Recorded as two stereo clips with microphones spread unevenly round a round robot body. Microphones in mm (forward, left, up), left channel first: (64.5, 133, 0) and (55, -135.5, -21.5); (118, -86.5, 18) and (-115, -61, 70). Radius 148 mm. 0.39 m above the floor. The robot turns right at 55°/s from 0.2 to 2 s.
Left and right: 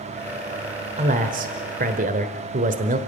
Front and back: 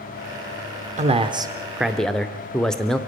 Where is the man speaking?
130° right, 1.0 m; by 3.0 s 75° right, 1.0 m.